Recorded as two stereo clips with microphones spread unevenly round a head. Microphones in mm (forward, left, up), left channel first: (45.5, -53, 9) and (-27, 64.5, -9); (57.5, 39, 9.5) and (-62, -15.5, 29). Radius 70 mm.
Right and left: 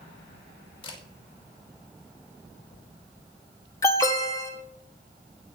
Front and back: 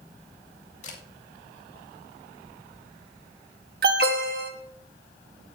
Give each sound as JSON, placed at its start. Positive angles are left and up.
{"t": 0.8, "sound": "a camera shutter", "azimuth_deg": -5, "distance_m": 2.5}
{"t": 3.8, "sound": "an alarm", "azimuth_deg": -130, "distance_m": 1.4}